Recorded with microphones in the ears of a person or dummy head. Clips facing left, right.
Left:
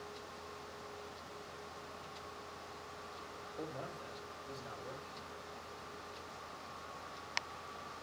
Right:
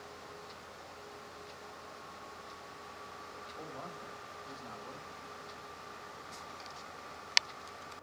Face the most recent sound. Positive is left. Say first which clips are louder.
# left 2 dB
turn(degrees=35)  # may be behind; listen again after turning